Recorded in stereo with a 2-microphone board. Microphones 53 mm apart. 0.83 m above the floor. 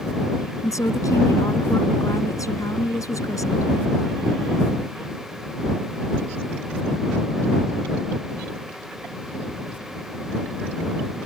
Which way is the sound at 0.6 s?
80° left.